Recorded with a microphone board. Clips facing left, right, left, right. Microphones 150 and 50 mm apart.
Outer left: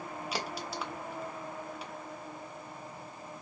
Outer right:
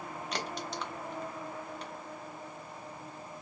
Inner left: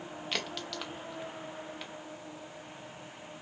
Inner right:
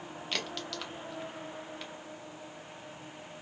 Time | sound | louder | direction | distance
0.3 | a crack | even, even | 5° left (ahead or behind) | 0.7 m